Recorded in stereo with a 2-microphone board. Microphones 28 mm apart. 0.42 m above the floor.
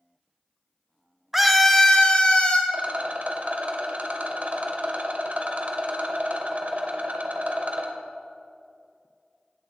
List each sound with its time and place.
1.3 s a scream: 5° right (ahead or behind), 0.8 m; by 2.6 s 40° left (ahead or behind), 1.5 m
2.7 s a rattle: 55° right (ahead or behind), 1.1 m